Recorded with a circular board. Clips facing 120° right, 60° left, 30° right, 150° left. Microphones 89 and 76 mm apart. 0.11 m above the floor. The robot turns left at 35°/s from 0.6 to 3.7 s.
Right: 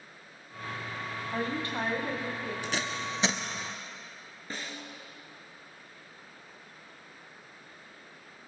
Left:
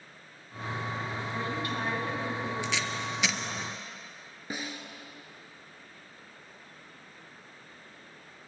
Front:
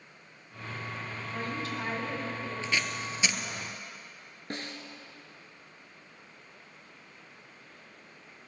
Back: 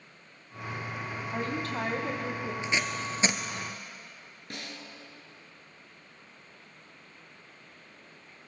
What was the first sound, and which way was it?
A woman speaking, 165° right.